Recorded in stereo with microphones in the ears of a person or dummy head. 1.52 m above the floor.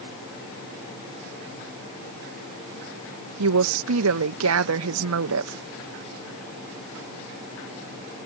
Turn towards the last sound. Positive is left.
turn(degrees=-75)  # may be behind; listen again after turning